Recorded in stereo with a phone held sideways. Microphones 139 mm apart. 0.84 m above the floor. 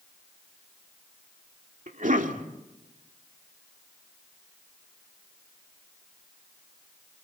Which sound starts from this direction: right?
A cough, at 1.9 s.